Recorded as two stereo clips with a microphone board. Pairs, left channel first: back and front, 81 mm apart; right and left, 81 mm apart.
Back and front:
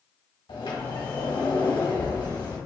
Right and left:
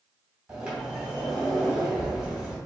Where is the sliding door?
170° left, 1.5 m.